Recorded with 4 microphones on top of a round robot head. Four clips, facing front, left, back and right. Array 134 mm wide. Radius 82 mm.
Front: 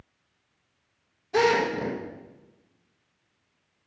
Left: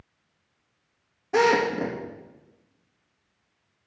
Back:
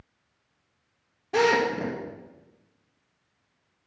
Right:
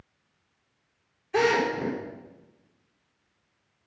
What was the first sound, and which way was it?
A drill, 120° left.